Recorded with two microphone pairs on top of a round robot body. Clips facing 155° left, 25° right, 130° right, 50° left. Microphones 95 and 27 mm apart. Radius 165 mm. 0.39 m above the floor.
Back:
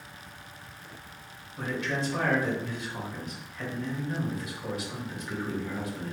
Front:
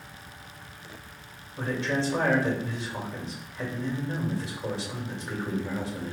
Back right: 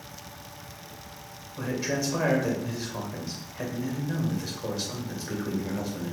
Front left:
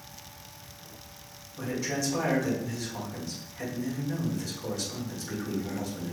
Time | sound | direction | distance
1.6 | a man speaking | 75° right | 2.5 m